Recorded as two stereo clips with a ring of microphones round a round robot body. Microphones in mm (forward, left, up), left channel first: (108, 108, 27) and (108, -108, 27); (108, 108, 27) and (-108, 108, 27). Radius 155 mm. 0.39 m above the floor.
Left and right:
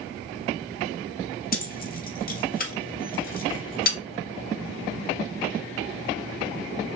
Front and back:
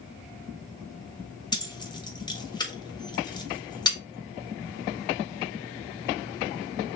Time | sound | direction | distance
1.5 | keys jangling | 65° left | 0.9 m